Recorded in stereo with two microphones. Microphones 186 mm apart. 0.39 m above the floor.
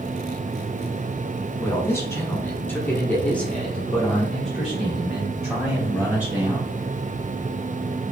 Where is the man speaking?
15° left (ahead or behind), 1.5 m; by 6.7 s 5° right (ahead or behind), 2.5 m.